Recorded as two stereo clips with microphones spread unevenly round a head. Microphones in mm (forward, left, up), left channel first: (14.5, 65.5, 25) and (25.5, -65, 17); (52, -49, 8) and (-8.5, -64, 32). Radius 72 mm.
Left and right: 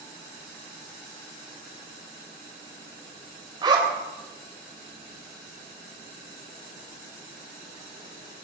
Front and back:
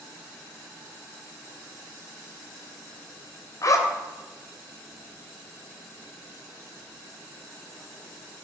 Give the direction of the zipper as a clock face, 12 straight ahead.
1 o'clock.